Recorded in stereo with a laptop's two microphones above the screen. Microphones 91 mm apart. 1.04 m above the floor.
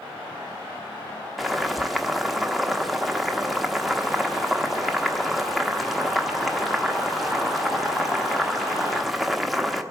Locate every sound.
1.4 s boiling: centre (ahead or behind), 0.7 m